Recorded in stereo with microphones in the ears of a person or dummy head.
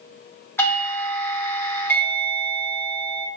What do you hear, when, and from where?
0.6 s a doorbell: 10° left (ahead or behind), 0.7 m